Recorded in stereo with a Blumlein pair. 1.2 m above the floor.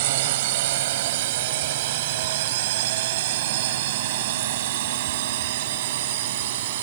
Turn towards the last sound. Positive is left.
turn(degrees=-55)